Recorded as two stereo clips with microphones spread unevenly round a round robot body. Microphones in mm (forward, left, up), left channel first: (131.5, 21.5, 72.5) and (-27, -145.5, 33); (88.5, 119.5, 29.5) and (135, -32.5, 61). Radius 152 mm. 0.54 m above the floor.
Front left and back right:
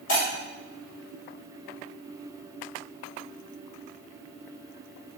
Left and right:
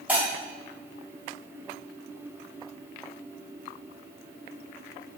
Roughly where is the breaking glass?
Ahead.